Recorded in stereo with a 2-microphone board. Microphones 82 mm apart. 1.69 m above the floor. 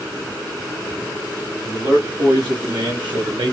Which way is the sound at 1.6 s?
60° right (ahead or behind).